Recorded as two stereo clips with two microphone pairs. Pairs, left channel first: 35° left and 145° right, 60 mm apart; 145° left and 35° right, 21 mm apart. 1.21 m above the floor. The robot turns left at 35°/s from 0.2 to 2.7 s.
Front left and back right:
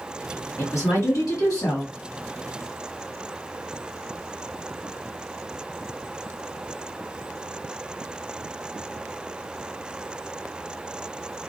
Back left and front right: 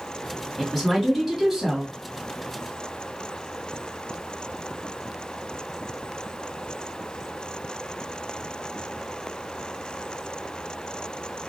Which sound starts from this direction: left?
A woman speaking, at 0.6 s.